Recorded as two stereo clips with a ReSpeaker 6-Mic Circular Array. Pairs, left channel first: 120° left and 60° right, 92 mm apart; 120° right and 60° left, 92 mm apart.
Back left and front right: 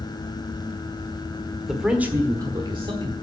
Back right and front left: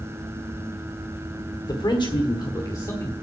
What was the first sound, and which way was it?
A man speaking, 150° right.